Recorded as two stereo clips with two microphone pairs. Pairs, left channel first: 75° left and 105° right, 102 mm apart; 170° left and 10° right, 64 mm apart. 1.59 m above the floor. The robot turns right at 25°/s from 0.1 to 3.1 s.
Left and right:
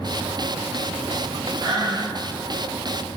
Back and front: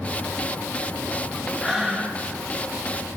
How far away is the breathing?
About 1.1 m.